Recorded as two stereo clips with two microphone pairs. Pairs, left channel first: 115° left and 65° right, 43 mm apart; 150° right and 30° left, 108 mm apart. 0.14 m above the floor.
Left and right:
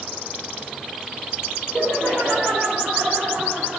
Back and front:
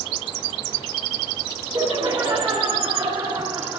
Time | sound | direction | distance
1.7 | laughter | 55° left | 7.5 m